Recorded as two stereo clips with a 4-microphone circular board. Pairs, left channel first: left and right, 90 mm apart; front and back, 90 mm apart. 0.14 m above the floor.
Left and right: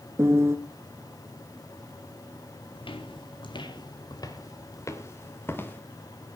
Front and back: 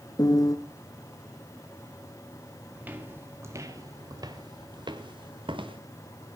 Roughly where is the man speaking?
No man speaking in this recording.